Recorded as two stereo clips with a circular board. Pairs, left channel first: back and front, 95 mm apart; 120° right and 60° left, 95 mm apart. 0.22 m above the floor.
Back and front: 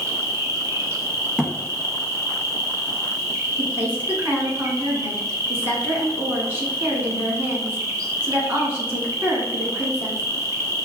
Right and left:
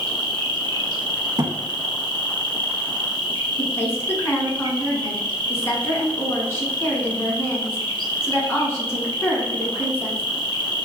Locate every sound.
0.0 s an insect: 45° left, 0.8 m
1.4 s a thud: 80° left, 0.5 m
3.6 s a woman speaking: 65° right, 1.9 m